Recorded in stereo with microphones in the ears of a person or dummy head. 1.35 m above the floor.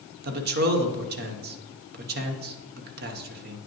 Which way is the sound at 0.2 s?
50° right (ahead or behind).